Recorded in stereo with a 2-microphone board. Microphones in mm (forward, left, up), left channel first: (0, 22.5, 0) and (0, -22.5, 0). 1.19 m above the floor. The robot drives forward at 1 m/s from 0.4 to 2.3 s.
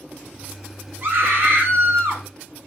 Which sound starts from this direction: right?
A scream, at 1.0 s.